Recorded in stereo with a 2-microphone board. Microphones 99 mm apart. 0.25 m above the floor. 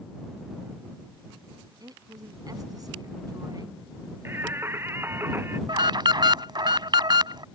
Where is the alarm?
50° right (ahead or behind).